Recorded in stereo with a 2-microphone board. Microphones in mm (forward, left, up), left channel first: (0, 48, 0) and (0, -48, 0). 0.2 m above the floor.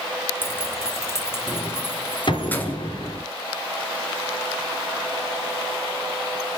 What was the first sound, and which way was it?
Keys jangling, 20° left (ahead or behind).